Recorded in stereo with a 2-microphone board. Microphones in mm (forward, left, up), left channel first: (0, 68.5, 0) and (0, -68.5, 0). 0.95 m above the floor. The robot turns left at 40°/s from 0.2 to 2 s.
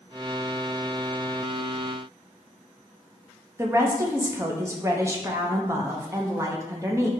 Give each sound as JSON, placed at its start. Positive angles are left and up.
{"t": 3.6, "sound": "a woman speaking", "side_deg": -20, "distance_m": 0.6}